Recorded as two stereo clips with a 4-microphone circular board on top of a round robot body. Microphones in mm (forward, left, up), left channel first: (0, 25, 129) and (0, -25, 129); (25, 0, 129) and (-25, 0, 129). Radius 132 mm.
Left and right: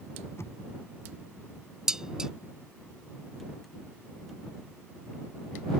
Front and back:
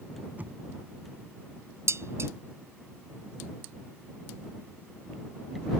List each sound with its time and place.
0.4 s knocking: 125° left
1.9 s dishes clattering: 165° right